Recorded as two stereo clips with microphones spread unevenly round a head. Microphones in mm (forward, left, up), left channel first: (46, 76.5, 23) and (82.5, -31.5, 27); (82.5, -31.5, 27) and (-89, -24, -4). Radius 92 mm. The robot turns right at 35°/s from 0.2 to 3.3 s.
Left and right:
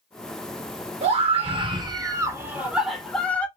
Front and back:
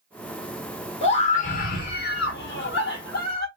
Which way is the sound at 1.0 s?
50° right.